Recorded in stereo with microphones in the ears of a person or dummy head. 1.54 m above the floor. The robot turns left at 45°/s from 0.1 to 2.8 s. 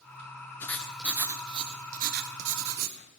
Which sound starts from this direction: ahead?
Writing, at 0.6 s.